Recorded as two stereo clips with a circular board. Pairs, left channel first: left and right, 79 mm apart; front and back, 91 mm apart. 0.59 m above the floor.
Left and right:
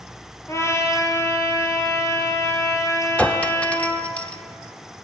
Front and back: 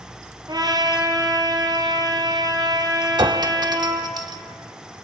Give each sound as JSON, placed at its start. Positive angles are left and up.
{"t": 0.5, "sound": "a trumpet", "azimuth_deg": 140, "distance_m": 3.5}
{"t": 3.2, "sound": "a clink", "azimuth_deg": 160, "distance_m": 1.1}